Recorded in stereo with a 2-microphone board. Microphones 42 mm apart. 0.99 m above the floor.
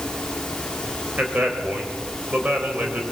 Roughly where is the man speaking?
Right.